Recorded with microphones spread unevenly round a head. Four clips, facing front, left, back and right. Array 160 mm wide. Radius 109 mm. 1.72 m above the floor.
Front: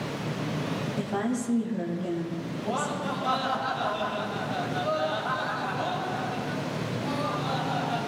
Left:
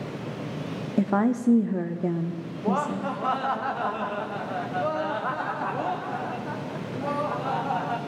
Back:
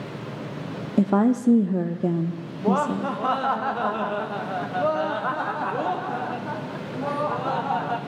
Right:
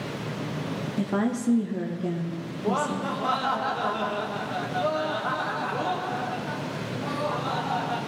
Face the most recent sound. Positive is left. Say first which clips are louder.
# even, back 9 dB
turn(degrees=-170)